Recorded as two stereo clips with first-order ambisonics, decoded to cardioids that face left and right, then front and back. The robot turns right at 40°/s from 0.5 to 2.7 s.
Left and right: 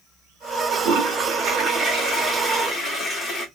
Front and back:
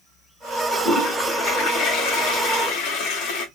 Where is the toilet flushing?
70° right, 1.7 m; by 3.5 s 10° left, 1.7 m.